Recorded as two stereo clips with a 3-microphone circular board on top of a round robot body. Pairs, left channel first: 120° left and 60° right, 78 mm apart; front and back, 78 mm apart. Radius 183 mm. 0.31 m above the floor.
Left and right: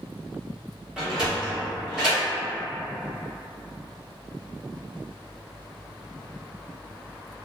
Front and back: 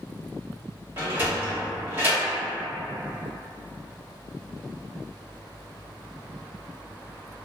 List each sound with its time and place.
1.0 s a sliding door: 135° right, 1.7 m